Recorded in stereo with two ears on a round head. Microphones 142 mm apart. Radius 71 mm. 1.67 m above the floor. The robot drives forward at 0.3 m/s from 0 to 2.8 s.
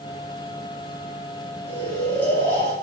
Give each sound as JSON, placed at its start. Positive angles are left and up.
{"t": 1.7, "sound": "snoring", "side_deg": 15, "distance_m": 6.5}